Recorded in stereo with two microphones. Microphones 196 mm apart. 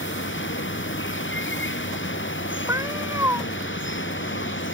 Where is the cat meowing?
15° right (ahead or behind).